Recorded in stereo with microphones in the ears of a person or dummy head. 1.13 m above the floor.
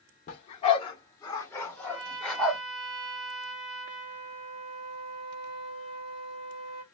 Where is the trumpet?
70° right (ahead or behind), 1.7 m.